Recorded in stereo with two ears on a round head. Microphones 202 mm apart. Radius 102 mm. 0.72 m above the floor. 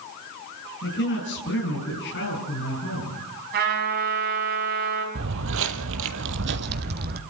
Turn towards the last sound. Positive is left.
turn(degrees=-40)  # may be behind; listen again after turning